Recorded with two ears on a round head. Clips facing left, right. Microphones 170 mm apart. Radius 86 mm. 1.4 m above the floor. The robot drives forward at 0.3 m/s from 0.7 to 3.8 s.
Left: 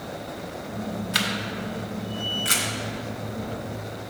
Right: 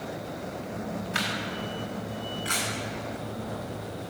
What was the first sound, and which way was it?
A camera shutter, 45° left (ahead or behind).